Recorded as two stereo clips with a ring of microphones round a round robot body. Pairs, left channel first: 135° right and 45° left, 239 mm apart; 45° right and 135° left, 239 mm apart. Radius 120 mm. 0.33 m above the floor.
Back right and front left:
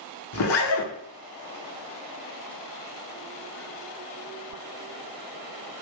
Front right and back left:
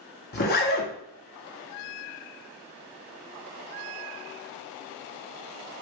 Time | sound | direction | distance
0.3 | a zipper | 100° right | 0.6 m